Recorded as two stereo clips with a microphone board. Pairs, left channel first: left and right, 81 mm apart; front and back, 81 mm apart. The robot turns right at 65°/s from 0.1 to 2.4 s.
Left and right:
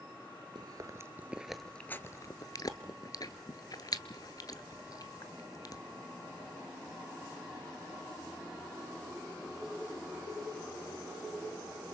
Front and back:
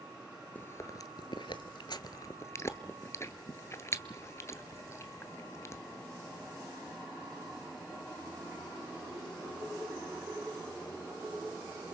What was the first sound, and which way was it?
Chewing, 65° right.